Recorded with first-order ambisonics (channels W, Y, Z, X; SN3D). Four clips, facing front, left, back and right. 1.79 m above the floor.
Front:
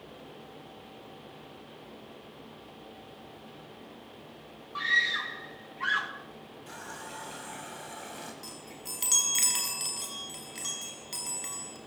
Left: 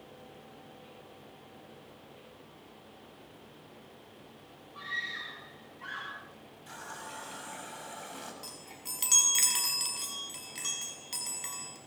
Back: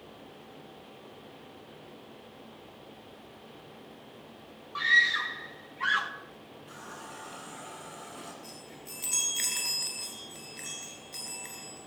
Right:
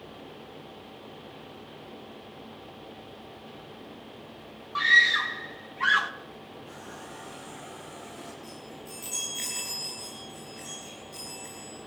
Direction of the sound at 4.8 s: 95° right.